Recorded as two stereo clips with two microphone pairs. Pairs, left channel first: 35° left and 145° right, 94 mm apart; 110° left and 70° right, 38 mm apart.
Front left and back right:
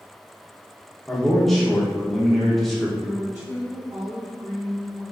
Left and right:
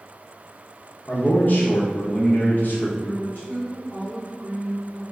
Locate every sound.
1.1 s a man speaking: 125° left, 0.9 m
3.0 s a woman speaking: 140° left, 1.4 m